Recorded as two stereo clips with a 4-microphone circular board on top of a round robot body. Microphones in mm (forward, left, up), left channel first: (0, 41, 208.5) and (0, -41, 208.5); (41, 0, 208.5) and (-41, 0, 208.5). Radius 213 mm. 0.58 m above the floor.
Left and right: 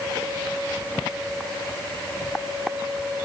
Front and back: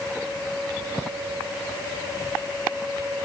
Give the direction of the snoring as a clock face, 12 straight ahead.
I don't hear snoring.